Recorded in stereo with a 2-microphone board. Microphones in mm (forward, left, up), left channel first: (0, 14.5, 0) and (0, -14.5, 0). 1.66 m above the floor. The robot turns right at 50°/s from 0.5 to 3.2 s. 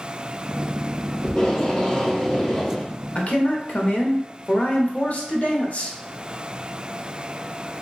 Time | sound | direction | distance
1.2 | tape being pulled | 30° left (ahead or behind) | 1.2 m
3.1 | a man speaking | 55° left (ahead or behind) | 0.6 m